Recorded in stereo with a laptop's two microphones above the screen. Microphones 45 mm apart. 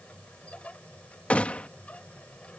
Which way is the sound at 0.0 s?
30° left (ahead or behind).